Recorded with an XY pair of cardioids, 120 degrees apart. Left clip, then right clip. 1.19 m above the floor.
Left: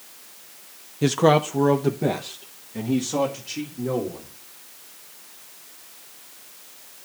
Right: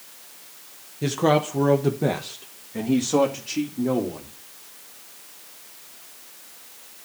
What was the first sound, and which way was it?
A man speaking, 35° left.